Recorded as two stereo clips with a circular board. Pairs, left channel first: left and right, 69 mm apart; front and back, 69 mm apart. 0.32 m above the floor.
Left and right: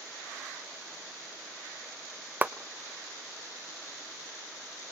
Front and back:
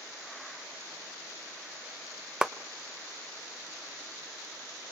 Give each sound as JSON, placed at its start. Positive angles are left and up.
{"t": 2.4, "sound": "a clap", "azimuth_deg": -115, "distance_m": 0.7}